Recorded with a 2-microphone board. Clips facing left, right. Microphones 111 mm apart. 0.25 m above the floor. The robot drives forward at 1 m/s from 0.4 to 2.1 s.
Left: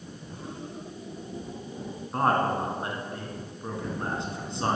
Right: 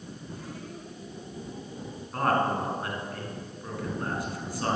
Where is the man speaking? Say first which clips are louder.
Left 1 dB; 25° left (ahead or behind), 2.5 m.